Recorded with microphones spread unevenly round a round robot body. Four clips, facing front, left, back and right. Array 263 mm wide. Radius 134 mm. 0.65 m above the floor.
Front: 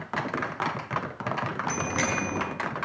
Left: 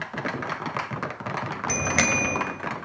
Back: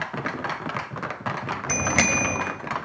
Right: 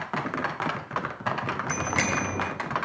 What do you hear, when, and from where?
1.7 s a bicycle bell: 150° left, 2.5 m